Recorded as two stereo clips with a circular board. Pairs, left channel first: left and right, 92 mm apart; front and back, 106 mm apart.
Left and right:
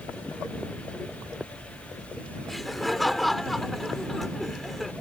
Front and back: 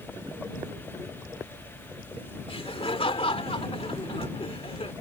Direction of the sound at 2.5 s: Straight ahead.